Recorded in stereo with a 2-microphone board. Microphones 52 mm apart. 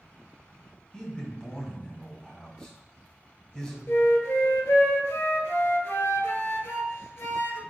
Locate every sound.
0.9 s a man speaking: 15° left (ahead or behind), 1.4 m
3.9 s a flute: 55° left (ahead or behind), 0.8 m